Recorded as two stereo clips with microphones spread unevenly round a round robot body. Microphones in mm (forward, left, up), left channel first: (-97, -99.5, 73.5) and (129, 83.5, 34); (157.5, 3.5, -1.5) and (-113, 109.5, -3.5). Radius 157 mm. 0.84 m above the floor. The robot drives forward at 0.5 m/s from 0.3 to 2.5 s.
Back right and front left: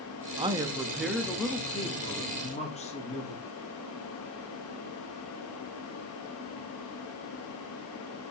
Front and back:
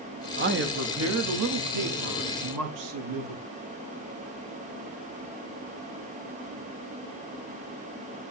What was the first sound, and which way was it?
A man speaking, 105° left.